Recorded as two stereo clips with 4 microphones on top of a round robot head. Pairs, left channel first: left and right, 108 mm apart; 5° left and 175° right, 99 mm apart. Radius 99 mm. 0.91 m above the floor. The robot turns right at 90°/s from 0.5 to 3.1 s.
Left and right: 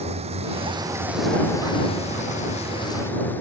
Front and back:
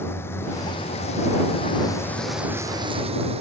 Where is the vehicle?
70° right; by 3.4 s 165° left.